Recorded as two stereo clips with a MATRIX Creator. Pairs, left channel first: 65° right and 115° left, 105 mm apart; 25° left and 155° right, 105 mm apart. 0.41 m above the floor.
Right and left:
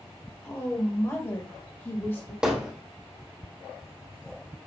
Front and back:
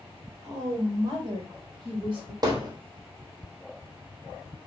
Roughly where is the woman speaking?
Behind right.